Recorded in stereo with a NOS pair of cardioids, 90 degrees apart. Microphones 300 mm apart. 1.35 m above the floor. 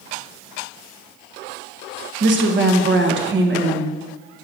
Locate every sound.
2.2 s a woman speaking: 40° right, 1.6 m